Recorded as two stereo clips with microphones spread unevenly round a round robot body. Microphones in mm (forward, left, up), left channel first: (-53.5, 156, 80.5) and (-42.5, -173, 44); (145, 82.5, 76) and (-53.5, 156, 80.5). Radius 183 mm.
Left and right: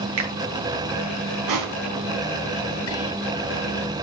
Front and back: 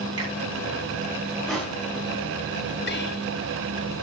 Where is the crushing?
110° right, 4.5 m.